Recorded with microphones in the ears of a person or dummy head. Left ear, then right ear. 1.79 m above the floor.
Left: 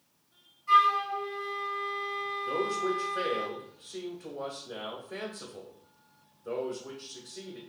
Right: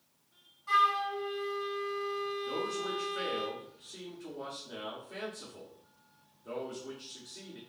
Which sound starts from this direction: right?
A flute, at 0.7 s.